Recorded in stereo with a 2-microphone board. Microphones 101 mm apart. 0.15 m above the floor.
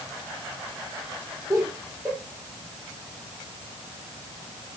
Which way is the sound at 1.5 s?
15° right (ahead or behind).